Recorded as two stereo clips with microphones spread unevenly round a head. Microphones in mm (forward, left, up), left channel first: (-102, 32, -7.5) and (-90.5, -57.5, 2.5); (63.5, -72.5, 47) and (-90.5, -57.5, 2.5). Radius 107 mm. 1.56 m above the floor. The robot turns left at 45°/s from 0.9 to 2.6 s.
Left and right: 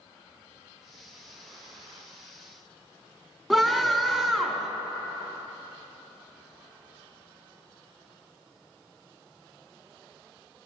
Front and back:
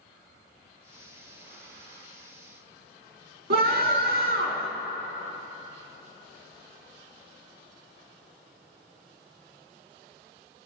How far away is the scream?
About 3 m.